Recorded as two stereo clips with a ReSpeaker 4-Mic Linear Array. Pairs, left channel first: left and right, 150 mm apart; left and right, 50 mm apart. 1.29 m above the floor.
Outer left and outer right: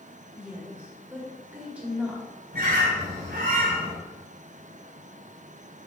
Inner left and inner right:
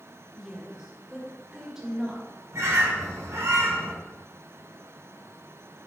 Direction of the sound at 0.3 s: 10° right (ahead or behind).